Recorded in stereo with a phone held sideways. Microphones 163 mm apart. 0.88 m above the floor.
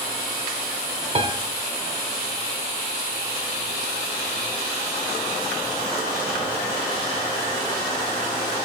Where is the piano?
40° right (ahead or behind), 0.9 m.